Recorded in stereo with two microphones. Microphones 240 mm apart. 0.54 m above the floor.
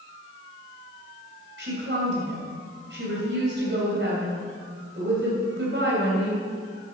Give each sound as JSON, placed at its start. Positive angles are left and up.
{"t": 1.6, "sound": "a woman speaking", "side_deg": -55, "distance_m": 3.0}